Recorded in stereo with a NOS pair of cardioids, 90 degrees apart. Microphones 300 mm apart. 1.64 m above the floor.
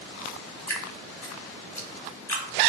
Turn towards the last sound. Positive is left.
turn(degrees=10)